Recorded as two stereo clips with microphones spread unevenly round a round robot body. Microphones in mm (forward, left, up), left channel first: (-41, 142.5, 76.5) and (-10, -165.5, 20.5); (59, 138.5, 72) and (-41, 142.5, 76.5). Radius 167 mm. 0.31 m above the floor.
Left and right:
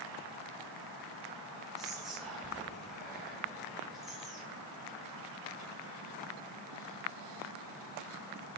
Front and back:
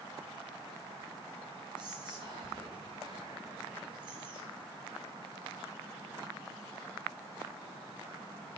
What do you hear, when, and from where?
1.8 s whispering: 165° right, 1.5 m